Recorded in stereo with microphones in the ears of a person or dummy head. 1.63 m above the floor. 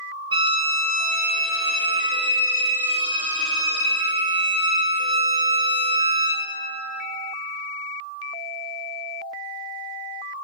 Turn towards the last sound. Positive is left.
turn(degrees=-25)  # may be behind; listen again after turning